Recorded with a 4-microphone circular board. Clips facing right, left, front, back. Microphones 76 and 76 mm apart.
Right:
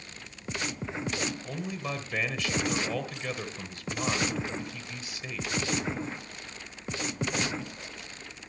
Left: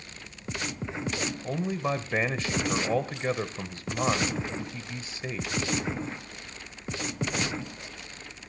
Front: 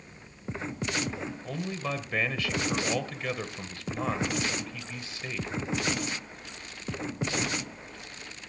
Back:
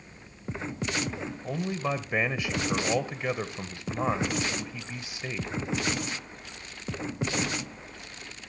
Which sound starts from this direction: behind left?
A man speaking, at 1.4 s.